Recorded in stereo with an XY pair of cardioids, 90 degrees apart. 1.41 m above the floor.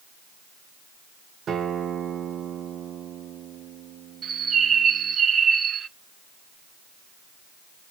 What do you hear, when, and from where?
1.5 s a guitar: 70° right, 1.5 m
4.2 s a bird: 55° right, 0.8 m